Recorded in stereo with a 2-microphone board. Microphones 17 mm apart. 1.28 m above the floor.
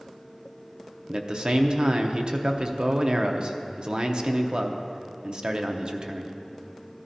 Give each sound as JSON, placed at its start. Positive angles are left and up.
{"t": 1.1, "sound": "a man speaking", "side_deg": -50, "distance_m": 0.7}